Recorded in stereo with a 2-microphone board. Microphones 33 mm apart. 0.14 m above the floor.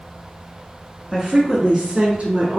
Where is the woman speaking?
5° right (ahead or behind), 1.7 m; by 2.6 s 40° right (ahead or behind), 1.9 m.